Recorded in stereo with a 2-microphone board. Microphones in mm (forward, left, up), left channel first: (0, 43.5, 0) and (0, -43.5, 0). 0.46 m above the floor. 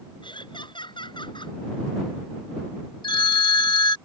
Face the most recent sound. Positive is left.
turn(degrees=70)  # may be behind; listen again after turning